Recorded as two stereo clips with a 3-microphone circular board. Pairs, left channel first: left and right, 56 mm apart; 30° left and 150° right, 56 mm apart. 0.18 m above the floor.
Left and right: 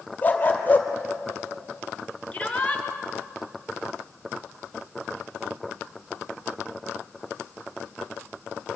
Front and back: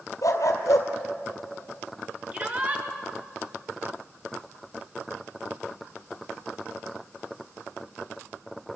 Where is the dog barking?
30° left, 2.5 m.